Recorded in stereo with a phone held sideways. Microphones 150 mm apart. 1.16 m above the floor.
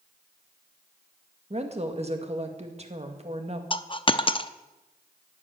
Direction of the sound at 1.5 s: 45° right (ahead or behind).